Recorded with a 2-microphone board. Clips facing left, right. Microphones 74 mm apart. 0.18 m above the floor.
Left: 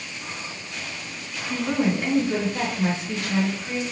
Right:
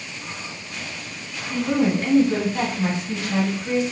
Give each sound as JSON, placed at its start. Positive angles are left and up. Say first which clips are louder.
{"t": 1.5, "sound": "a woman speaking", "louder": "right 3 dB", "side_deg": 20, "distance_m": 1.5}